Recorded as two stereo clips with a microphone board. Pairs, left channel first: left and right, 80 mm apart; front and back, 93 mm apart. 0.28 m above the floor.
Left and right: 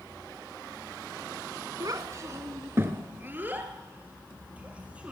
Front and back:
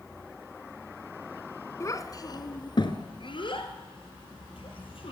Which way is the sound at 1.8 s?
55° right.